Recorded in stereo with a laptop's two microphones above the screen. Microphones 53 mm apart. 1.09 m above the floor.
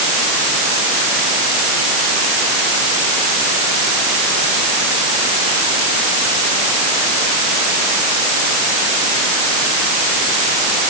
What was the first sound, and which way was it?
Only background noise.